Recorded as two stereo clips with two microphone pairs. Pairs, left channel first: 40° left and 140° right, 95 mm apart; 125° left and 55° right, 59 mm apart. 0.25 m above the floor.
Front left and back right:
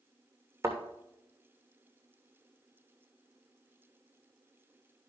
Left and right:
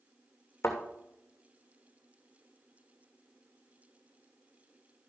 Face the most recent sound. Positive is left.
turn(degrees=160)